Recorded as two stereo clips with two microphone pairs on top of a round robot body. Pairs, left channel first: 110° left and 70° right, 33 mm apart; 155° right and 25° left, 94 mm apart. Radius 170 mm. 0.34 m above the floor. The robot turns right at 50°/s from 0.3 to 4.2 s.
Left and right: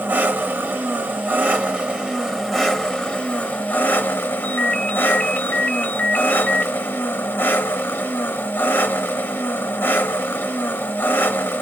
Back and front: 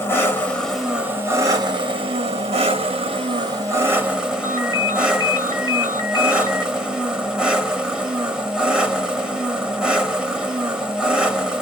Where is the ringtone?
150° left, 1.7 m.